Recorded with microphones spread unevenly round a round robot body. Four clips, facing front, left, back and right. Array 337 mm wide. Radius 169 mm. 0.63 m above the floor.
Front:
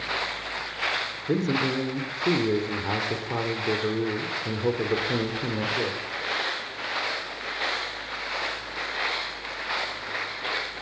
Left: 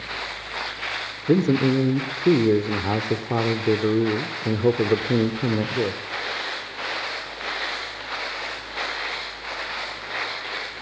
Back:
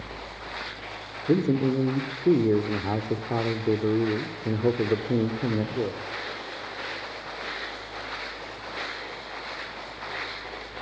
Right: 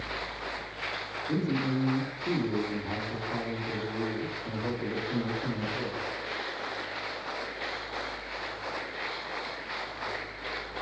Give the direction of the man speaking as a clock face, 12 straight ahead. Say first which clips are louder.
Left 11 dB, back 3 dB; 9 o'clock.